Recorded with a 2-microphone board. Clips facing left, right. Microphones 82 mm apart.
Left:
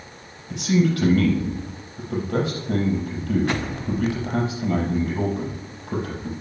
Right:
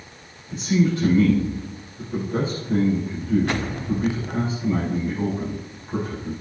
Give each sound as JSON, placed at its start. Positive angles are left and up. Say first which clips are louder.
{"t": 0.5, "sound": "a man speaking", "louder": "even", "side_deg": 70, "distance_m": 6.0}